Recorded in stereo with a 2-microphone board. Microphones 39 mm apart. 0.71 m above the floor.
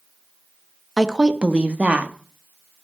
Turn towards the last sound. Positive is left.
turn(degrees=-40)  # may be behind; listen again after turning